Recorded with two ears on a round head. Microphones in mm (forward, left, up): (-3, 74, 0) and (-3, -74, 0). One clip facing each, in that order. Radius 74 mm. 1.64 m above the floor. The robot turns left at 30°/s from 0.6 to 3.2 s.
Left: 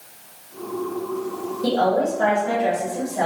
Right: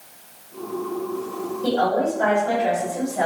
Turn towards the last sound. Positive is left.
turn(degrees=0)